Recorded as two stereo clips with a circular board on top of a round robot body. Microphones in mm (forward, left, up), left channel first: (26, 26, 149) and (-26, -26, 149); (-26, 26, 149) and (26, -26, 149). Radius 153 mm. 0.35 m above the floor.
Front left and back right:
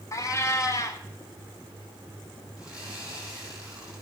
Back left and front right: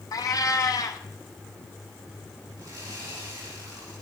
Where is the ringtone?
I don't hear a ringtone.